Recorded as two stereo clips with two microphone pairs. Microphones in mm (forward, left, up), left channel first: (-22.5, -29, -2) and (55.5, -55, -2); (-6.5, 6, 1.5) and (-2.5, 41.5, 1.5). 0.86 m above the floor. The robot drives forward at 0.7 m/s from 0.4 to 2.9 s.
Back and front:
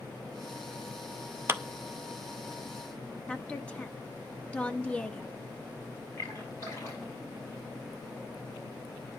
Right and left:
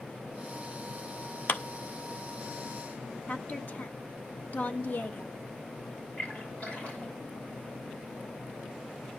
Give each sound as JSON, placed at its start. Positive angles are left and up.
{"t": 1.5, "sound": "a clap", "azimuth_deg": -75, "distance_m": 0.6}
{"t": 3.3, "sound": "a woman speaking", "azimuth_deg": -125, "distance_m": 1.0}
{"t": 6.2, "sound": "a splash", "azimuth_deg": -155, "distance_m": 6.0}